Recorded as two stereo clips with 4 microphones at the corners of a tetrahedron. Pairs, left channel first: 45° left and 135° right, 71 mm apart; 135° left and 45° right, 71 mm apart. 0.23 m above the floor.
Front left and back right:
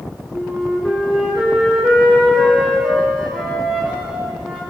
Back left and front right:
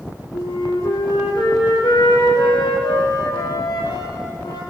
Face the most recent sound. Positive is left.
turn(degrees=135)